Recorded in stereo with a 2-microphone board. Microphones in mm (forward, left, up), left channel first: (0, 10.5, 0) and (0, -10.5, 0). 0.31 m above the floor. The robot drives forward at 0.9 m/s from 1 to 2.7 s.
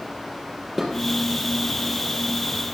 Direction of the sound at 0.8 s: 5° right (ahead or behind).